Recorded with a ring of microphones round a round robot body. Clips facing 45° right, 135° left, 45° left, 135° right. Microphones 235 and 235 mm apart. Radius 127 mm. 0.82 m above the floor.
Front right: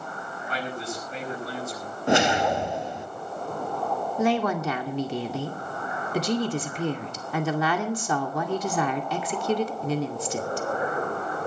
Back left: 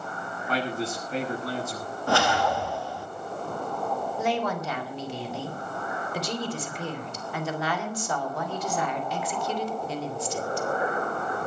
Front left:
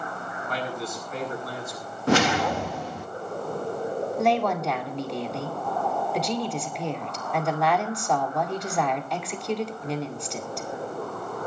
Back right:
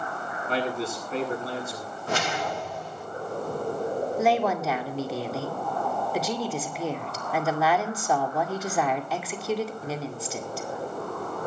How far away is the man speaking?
About 8.5 m.